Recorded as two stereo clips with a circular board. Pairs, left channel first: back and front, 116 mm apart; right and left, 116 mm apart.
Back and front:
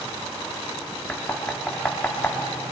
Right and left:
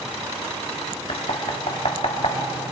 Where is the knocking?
105° right, 1.5 m.